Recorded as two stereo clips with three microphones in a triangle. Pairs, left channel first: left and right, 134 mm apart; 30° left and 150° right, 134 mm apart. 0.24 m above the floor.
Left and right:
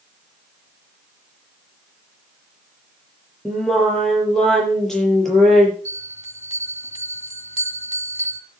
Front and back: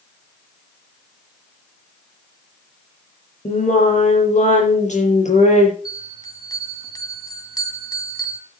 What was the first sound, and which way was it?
Singing, 5° left.